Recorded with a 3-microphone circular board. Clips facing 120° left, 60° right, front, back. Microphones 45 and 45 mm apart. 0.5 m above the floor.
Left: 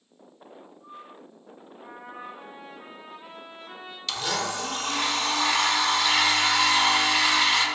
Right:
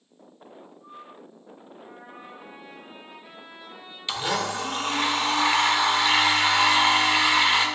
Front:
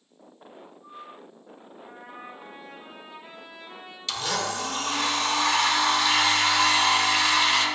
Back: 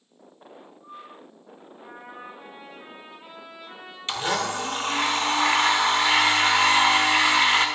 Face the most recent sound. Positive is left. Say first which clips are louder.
# right 2 dB, back 3 dB
turn(degrees=-125)